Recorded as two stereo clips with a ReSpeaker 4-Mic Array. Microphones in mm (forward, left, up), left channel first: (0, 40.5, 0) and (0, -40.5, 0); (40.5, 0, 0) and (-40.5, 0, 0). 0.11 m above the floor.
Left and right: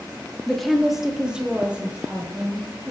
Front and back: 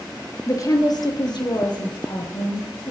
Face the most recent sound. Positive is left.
turn(degrees=-20)